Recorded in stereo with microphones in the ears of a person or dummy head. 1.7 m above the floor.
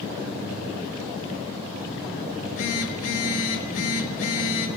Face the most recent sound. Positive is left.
turn(degrees=75)  # may be behind; listen again after turning